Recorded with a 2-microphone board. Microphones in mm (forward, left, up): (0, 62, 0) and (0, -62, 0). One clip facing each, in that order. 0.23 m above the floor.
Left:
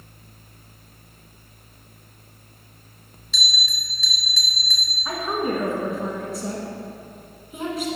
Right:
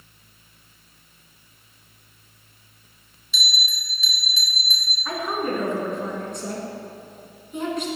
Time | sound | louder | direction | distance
3.3 | a bell | even | 70° left (ahead or behind) | 0.9 m
5.0 | a woman speaking | left 1 dB | 5° left (ahead or behind) | 1.9 m